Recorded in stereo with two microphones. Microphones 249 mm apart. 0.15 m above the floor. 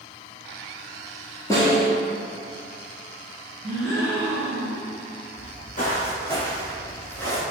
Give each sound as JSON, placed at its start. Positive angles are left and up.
{"t": 1.5, "sound": "a snare drum", "side_deg": 15, "distance_m": 1.1}
{"t": 3.6, "sound": "a gasp", "side_deg": -5, "distance_m": 1.7}
{"t": 5.4, "sound": "footsteps", "side_deg": 45, "distance_m": 1.0}